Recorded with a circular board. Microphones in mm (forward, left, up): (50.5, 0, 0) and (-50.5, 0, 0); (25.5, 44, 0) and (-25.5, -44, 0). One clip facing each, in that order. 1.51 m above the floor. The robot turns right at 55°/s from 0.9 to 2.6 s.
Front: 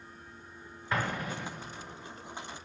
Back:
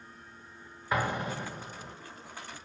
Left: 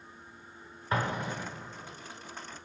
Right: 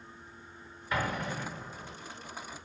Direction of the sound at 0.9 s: 105° left.